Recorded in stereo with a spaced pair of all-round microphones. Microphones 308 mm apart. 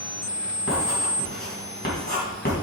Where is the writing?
30° left (ahead or behind), 3 m.